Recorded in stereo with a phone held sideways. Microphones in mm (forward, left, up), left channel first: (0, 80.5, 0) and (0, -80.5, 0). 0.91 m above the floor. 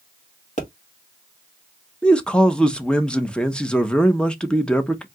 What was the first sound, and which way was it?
A pop, 45° left (ahead or behind).